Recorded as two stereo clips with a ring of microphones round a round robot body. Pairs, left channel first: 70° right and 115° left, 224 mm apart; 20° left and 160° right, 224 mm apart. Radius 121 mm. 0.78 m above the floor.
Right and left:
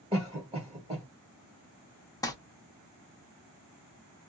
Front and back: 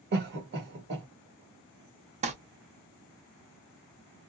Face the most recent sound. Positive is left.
turn(degrees=-130)